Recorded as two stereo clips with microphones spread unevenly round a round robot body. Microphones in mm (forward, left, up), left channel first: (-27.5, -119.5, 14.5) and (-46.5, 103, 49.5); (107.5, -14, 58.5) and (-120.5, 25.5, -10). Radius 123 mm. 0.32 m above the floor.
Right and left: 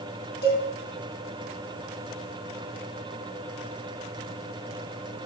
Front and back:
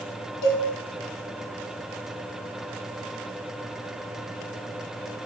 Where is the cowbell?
35° right, 3.5 m.